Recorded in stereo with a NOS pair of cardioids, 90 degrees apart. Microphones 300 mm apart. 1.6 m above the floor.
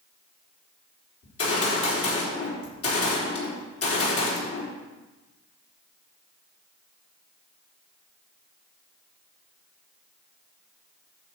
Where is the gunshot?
50° left, 4 m.